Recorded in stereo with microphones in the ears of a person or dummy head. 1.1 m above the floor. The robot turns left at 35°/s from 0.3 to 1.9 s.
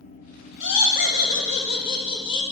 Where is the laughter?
75° left, 1.5 m; by 2.4 s 30° left, 1.5 m.